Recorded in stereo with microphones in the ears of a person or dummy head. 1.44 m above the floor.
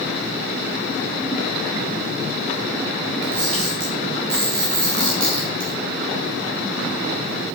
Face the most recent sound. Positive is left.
turn(degrees=-60)  # may be behind; listen again after turning